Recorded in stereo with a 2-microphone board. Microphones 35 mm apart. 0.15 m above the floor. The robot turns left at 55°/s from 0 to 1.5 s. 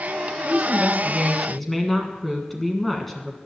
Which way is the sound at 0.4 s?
15° right (ahead or behind).